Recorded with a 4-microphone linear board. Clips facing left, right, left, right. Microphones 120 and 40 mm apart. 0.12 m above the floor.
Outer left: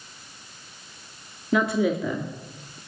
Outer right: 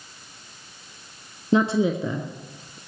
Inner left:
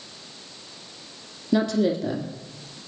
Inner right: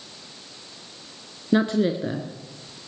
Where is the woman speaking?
30° right (ahead or behind), 1.3 m; by 2.8 s 20° right (ahead or behind), 1.6 m.